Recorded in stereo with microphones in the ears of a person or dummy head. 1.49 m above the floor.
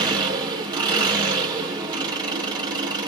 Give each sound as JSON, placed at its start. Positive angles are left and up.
{"t": 0.0, "sound": "an engine running", "side_deg": -20, "distance_m": 1.4}